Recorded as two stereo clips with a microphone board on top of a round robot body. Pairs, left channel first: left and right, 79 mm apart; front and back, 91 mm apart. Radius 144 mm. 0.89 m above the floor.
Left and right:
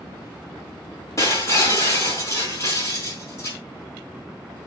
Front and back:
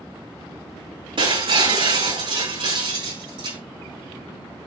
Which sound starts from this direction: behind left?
Breaking glass, at 1.2 s.